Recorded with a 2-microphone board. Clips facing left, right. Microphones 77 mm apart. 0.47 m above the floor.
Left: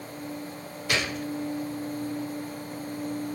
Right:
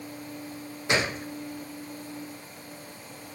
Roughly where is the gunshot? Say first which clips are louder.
Right 2 dB; right.